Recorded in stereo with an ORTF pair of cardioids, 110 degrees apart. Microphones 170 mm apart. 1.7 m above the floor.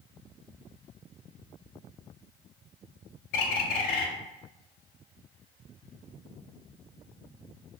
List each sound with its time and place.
3.3 s a bird: 70° left, 0.8 m